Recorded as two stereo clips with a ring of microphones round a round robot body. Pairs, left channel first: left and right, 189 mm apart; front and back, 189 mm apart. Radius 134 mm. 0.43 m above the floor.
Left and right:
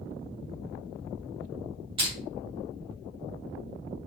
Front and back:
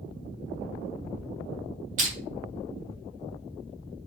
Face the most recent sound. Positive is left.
turn(degrees=-145)